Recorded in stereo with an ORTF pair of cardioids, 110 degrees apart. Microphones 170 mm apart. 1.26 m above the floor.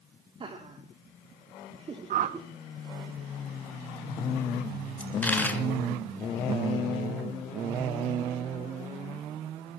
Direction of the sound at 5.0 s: 10° left.